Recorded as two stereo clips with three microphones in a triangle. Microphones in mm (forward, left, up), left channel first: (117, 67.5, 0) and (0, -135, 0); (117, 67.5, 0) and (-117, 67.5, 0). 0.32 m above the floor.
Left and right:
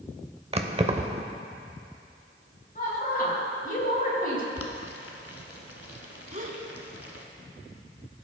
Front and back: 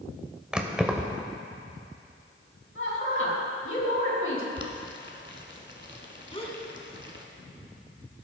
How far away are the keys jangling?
About 0.6 m.